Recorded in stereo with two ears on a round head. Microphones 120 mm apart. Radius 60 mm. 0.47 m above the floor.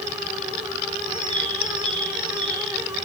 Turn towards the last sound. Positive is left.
turn(degrees=-40)  # may be behind; listen again after turning